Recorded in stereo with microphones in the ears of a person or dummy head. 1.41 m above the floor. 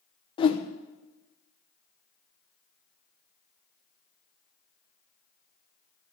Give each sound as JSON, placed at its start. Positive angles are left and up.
{"t": 0.4, "sound": "a whoosh", "side_deg": 30, "distance_m": 1.0}